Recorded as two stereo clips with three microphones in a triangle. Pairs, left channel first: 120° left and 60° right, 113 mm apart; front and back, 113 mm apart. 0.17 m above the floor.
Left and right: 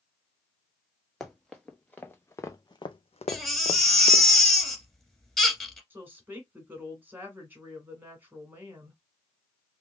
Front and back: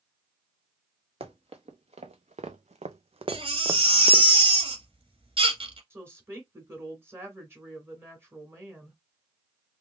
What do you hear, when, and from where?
1.2 s running footsteps: 155° right, 1.3 m; by 4.3 s 95° left, 0.7 m
3.3 s a baby crying: 155° right, 1.8 m
5.9 s a woman speaking: 125° right, 1.8 m